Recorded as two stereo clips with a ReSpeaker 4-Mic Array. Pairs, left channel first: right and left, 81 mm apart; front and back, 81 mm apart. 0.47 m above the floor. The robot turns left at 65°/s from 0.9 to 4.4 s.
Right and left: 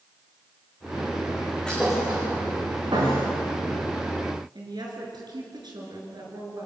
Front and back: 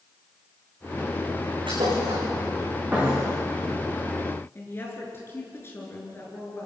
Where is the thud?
170° right, 10 m; by 3.2 s 90° left, 10 m.